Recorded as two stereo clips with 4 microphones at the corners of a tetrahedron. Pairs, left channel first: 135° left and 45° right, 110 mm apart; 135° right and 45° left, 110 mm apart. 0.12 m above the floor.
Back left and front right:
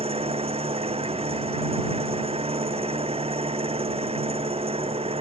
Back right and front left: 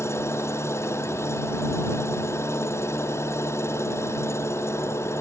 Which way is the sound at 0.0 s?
70° right.